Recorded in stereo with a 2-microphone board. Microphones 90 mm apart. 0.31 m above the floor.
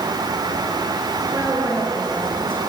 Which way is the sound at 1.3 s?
25° right (ahead or behind).